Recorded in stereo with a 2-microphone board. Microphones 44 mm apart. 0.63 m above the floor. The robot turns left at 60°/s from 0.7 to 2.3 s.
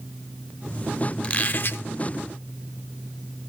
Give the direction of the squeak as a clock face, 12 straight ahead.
7 o'clock.